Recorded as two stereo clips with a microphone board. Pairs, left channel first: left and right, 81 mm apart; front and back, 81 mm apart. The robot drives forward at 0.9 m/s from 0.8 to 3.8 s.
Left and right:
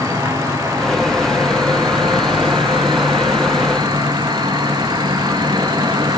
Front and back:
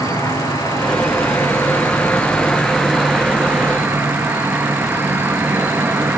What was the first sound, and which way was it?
An insect, 45° right.